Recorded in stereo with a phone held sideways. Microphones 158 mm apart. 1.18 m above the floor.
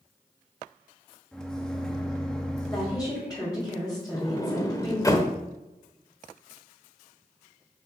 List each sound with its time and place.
1.3 s a microwave: 5° left (ahead or behind), 1.1 m
2.7 s a woman speaking: 15° left (ahead or behind), 3 m
4.1 s a sliding door: 20° left (ahead or behind), 1.0 m